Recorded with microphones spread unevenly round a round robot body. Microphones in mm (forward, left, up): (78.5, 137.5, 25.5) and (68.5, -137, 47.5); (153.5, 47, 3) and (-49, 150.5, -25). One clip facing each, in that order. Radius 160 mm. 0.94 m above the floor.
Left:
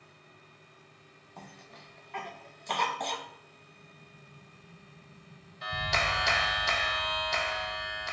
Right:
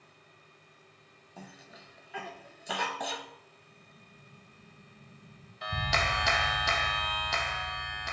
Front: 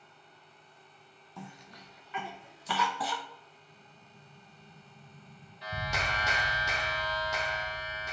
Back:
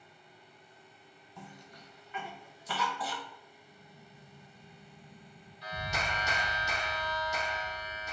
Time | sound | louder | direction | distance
1.4 | a cough | right 1 dB, front 3 dB | 5° right | 0.5 m
3.7 | an explosion | left 2 dB, back 2 dB | 130° right | 1.9 m
5.6 | a clap | even, front 1 dB | 80° right | 0.6 m